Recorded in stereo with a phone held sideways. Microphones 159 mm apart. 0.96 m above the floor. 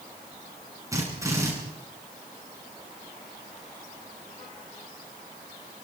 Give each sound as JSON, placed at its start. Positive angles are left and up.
{"t": 0.9, "sound": "a drill", "side_deg": -20, "distance_m": 9.0}